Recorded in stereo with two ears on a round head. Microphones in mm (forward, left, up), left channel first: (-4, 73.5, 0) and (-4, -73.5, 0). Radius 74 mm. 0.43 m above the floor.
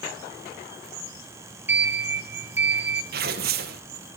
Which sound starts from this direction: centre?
A sliding door, at 1.7 s.